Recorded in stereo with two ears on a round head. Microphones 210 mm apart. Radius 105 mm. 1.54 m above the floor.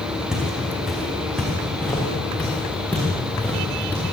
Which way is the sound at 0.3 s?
Centre (ahead or behind).